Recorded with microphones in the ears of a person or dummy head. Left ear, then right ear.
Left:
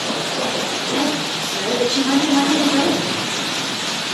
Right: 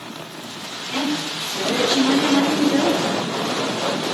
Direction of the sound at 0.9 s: 60° right (ahead or behind).